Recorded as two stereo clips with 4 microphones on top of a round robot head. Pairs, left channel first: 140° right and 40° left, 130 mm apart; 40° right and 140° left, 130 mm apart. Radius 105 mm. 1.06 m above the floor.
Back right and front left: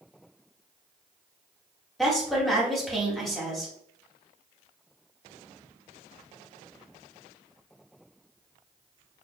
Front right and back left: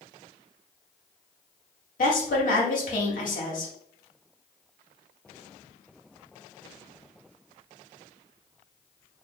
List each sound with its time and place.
2.0 s a woman speaking: 50° right, 2.5 m